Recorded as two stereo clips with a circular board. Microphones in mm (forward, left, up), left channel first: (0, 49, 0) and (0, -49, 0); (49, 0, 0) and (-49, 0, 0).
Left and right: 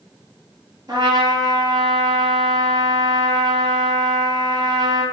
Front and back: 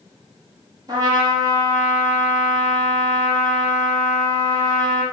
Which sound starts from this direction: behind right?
A trumpet, at 0.9 s.